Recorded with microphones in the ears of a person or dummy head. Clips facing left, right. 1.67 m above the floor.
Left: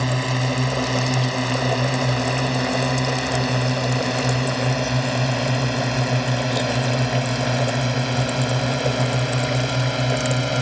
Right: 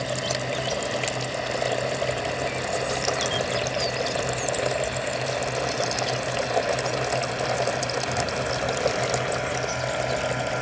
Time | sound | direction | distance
0.0 | a drone | 65° left (ahead or behind) | ?